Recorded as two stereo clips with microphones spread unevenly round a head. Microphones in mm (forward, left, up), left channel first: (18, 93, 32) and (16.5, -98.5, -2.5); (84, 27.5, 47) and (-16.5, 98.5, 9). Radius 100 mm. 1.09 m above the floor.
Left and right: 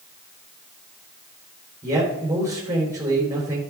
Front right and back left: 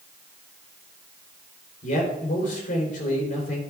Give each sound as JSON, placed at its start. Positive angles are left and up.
{"t": 1.8, "sound": "a man speaking", "azimuth_deg": -15, "distance_m": 4.0}